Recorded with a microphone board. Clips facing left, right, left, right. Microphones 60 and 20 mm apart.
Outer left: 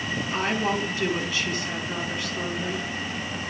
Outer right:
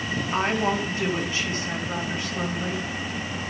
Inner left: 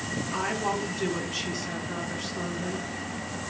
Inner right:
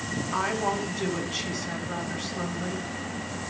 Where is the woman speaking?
35° right (ahead or behind), 8.5 m.